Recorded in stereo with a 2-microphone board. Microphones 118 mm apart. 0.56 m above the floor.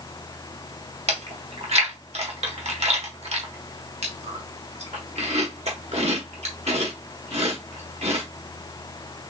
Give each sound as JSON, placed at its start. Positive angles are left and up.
{"t": 1.1, "sound": "chewing", "side_deg": -65, "distance_m": 1.3}